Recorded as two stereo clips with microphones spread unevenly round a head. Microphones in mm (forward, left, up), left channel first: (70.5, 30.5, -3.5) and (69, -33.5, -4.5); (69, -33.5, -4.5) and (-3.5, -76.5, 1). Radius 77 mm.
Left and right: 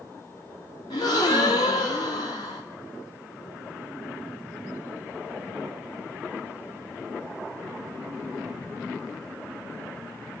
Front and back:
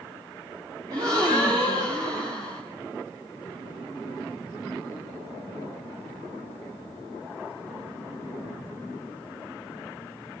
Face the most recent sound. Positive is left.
turn(degrees=140)